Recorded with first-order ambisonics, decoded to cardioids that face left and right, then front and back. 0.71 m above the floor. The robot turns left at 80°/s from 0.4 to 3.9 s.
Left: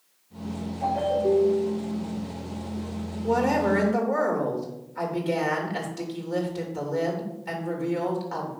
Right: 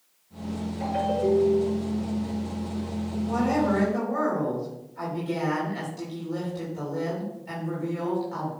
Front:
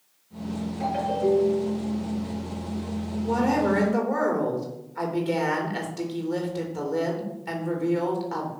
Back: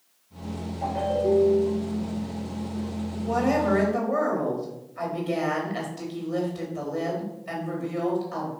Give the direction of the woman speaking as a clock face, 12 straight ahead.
9 o'clock.